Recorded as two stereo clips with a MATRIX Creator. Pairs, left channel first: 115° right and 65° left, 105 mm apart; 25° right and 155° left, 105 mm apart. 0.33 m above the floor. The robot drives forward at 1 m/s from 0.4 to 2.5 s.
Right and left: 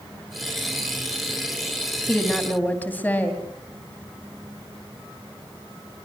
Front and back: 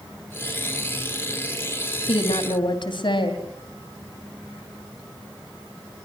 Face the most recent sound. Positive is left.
turn(degrees=-45)